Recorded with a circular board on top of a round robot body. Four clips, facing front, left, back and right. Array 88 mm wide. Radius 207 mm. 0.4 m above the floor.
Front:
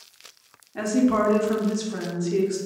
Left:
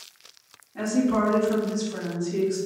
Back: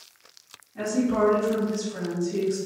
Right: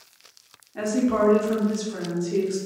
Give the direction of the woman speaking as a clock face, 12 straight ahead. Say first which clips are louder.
Right 1 dB, front 3 dB; 1 o'clock.